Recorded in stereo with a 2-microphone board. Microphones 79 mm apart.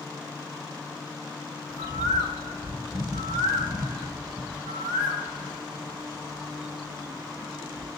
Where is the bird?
55° right (ahead or behind), 3 m.